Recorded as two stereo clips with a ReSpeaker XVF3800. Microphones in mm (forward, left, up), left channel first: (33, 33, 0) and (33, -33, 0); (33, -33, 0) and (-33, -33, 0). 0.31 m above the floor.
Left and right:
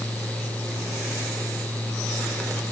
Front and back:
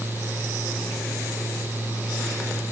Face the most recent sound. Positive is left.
No sound to turn to.